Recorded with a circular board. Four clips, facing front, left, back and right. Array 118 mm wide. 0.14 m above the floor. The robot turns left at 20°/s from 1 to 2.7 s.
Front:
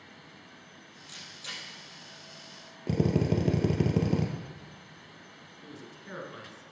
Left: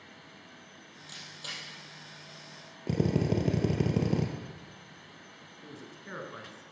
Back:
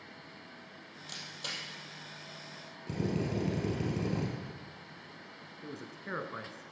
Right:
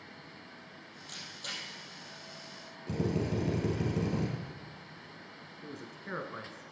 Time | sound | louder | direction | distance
1.1 | a camera shutter | even, back 2 dB | straight behind | 3.5 m
2.9 | a drill | left 4 dB, front 7 dB | 40° left | 1.9 m
5.6 | a man speaking | right 2 dB, back 3 dB | 155° right | 1.5 m